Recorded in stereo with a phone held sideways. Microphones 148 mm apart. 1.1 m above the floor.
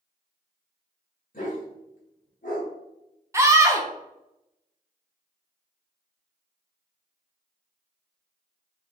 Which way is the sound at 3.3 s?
20° right (ahead or behind).